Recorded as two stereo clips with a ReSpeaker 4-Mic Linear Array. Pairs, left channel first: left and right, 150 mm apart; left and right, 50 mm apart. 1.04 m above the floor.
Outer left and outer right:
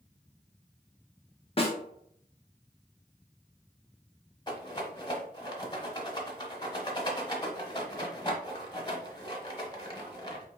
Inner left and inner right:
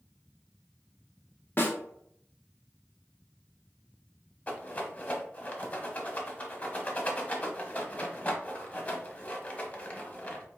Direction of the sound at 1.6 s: 40° left (ahead or behind).